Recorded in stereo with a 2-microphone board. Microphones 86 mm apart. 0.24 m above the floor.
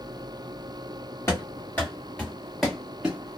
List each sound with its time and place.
1.3 s running footsteps: 30° left (ahead or behind), 1.9 m; by 3.4 s 15° right (ahead or behind), 1.5 m